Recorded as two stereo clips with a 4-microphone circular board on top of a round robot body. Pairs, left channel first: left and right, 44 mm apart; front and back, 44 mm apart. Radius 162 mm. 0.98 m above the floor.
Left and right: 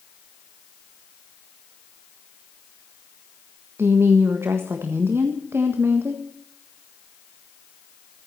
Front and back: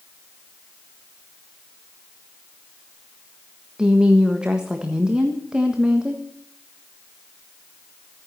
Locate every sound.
3.8 s a woman speaking: 110° right, 1.7 m